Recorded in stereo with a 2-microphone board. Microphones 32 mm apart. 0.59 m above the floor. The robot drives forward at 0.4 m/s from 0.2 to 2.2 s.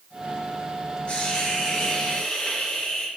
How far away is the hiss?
About 1.9 m.